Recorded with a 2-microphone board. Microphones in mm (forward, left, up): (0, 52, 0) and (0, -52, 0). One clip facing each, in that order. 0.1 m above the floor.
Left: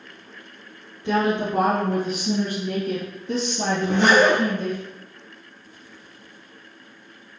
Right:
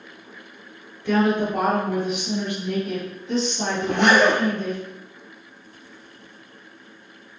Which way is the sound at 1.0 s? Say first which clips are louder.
Right 2 dB; 20° left (ahead or behind).